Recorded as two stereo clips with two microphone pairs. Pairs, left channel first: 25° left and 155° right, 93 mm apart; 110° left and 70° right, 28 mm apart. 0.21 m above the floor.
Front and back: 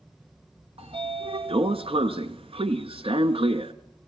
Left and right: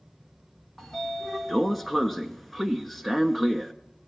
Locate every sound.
0.8 s a sliding door: 165° right, 1.3 m